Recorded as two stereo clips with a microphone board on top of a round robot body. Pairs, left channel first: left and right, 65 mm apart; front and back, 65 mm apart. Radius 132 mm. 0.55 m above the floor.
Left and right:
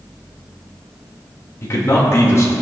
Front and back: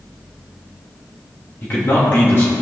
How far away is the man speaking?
About 2.5 m.